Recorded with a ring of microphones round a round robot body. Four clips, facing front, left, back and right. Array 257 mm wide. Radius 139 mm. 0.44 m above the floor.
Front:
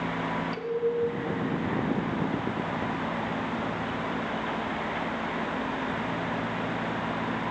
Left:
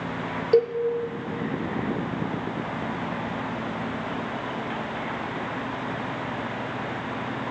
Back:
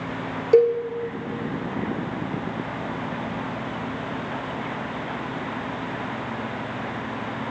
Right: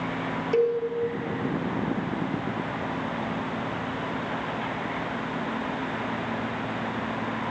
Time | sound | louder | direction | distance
0.5 | a cowbell | left 3 dB, back 15 dB | 160° left | 3.5 m